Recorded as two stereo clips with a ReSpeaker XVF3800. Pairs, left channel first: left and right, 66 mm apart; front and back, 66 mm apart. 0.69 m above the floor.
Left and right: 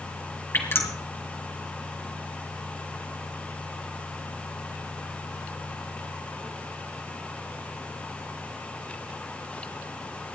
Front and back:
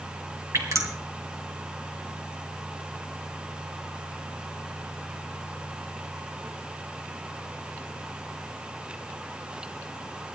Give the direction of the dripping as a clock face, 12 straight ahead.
7 o'clock.